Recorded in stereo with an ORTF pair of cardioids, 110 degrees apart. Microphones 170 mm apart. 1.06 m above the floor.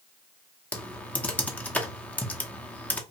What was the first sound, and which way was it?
Typing on a keyboard, 10° left.